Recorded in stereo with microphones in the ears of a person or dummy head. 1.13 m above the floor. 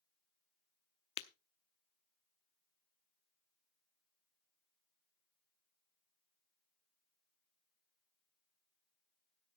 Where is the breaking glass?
30° left (ahead or behind), 0.8 m.